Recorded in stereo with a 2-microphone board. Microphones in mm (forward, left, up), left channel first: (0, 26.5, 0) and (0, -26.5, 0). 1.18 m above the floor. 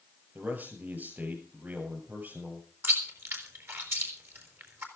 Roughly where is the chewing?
Right.